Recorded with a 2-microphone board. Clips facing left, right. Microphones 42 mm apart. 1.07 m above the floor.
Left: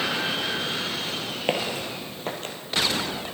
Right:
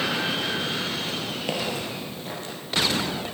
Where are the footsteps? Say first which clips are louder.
Left 3 dB; 35° left (ahead or behind), 1.2 m; by 2.5 s 55° left (ahead or behind), 1.8 m.